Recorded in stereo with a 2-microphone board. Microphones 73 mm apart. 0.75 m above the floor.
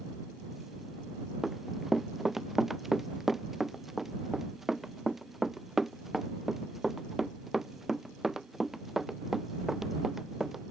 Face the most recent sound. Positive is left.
turn(degrees=-5)  # may be behind; listen again after turning